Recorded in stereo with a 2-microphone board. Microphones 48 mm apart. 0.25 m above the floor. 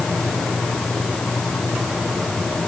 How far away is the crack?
I don't hear a crack.